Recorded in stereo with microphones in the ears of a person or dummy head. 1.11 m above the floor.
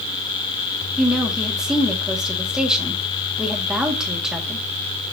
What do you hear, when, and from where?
1.0 s a woman speaking: 5° left (ahead or behind), 1.9 m